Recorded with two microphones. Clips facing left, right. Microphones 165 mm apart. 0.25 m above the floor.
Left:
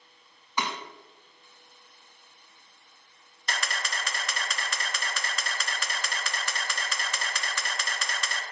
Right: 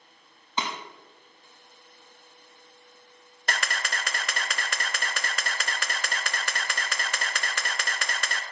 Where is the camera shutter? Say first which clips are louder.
Right 2 dB; 60° right (ahead or behind), 0.6 m.